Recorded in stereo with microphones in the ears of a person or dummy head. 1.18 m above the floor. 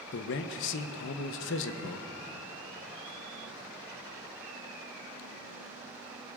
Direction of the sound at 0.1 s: 65° left (ahead or behind).